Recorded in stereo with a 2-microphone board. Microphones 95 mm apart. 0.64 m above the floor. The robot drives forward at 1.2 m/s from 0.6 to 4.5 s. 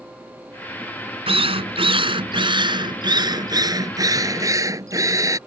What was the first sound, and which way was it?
A drill, 80° right.